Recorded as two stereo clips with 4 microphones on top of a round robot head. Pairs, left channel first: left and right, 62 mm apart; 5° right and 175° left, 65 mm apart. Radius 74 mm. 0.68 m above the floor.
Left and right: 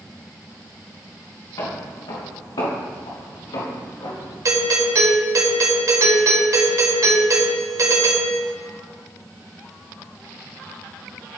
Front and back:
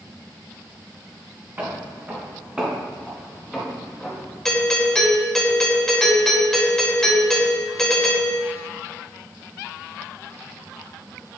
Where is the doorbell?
85° right, 2 m.